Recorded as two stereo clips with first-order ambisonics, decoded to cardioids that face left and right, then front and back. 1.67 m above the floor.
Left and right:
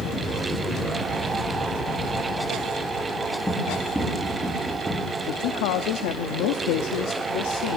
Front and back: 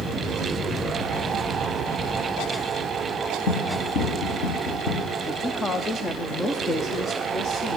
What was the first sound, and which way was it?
Running footsteps, 10° left.